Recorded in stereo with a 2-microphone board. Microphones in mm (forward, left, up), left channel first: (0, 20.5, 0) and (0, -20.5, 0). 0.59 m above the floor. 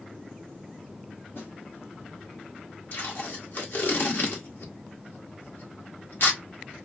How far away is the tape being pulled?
About 1.7 m.